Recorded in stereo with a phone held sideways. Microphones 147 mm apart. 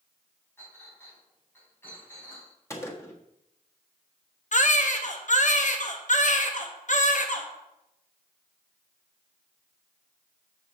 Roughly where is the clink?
Centre.